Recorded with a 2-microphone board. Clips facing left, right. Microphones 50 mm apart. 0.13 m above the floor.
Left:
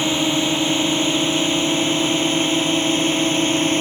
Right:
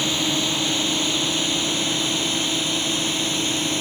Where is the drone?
25° left (ahead or behind); by 3.8 s 35° left (ahead or behind).